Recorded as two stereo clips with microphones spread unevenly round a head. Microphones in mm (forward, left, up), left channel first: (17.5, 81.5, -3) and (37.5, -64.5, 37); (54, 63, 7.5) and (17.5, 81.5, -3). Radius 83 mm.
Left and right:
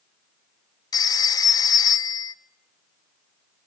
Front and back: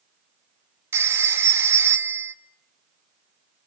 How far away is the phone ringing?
About 1.2 m.